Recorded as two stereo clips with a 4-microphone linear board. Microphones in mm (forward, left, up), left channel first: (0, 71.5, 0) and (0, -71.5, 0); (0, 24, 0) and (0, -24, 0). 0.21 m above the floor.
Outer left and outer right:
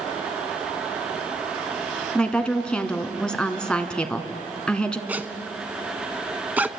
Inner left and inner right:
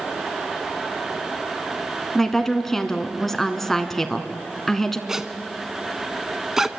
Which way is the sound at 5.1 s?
10° right (ahead or behind).